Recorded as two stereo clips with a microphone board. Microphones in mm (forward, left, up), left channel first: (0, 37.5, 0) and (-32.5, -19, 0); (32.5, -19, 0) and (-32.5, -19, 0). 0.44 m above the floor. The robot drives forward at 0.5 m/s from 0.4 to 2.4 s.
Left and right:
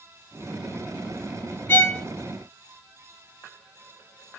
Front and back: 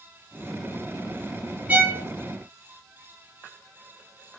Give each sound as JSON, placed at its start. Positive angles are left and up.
{"t": 1.7, "sound": "a violin", "azimuth_deg": 115, "distance_m": 0.5}